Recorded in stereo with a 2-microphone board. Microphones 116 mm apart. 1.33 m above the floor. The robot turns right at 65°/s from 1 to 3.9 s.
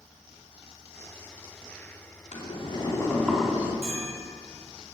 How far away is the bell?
About 4.5 m.